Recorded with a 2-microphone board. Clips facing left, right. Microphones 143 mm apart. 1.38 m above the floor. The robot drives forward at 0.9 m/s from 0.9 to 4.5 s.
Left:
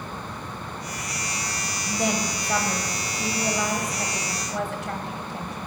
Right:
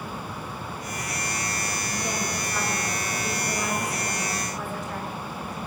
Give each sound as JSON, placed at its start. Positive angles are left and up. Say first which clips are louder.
{"t": 1.9, "sound": "a woman speaking", "louder": "left 7 dB", "side_deg": 85, "distance_m": 6.0}